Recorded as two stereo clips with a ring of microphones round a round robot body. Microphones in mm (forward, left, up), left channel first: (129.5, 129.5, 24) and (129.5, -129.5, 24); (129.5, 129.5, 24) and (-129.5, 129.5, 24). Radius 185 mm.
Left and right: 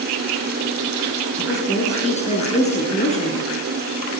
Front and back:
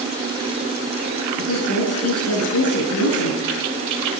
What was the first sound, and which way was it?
A woman speaking, 25° left.